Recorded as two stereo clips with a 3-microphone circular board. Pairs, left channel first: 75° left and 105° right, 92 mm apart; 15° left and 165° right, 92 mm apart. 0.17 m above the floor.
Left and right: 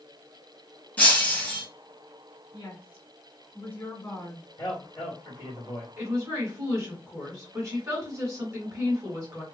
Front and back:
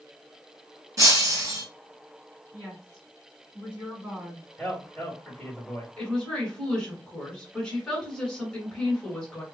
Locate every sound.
1.0 s breaking glass: 140° left, 1.9 m
2.5 s a woman speaking: 125° left, 2 m
4.6 s a man speaking: 100° left, 1.9 m
6.0 s a woman speaking: 60° right, 1.8 m